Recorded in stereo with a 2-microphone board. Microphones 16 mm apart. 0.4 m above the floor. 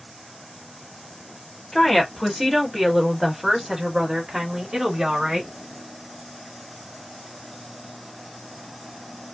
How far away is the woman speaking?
About 1.6 m.